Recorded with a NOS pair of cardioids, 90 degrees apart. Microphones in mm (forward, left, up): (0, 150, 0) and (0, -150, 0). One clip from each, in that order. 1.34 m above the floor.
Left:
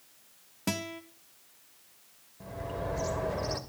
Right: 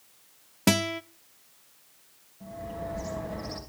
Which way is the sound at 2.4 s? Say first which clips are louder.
Even; 65° left.